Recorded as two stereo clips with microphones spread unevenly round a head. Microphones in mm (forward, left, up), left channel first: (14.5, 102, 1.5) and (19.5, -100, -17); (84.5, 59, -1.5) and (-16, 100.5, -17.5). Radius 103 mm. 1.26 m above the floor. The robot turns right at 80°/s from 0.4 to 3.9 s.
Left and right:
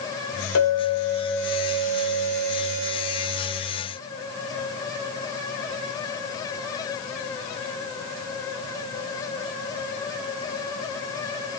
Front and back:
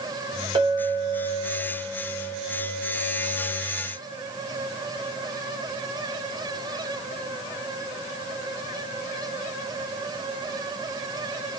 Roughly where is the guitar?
I don't hear a guitar.